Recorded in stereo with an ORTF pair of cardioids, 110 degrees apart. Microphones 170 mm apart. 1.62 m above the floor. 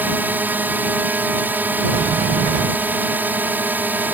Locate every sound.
0.0 s a drone: 10° right
1.9 s a sliding door: 40° right